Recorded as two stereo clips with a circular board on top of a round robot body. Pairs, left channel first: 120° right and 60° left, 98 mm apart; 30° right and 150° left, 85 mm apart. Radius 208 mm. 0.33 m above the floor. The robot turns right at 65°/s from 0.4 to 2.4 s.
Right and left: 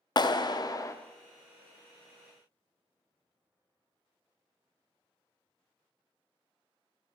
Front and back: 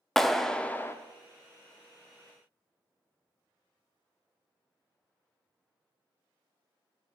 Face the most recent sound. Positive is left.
turn(degrees=15)